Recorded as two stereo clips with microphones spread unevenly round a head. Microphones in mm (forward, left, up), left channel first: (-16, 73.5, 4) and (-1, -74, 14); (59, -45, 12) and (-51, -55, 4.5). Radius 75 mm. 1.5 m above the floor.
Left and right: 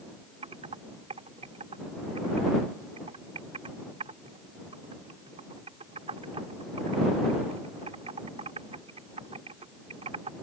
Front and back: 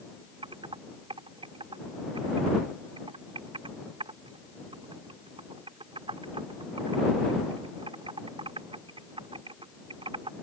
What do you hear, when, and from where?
0.4 s typing on a keyboard: 135° right